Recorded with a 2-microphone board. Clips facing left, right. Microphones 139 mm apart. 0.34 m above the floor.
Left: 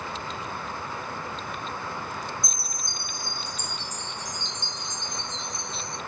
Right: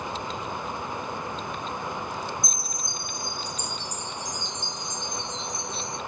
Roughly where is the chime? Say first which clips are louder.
Right 2 dB; left.